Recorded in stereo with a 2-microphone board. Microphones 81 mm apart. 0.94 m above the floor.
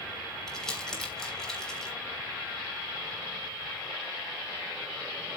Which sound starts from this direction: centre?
Crumpling, at 0.5 s.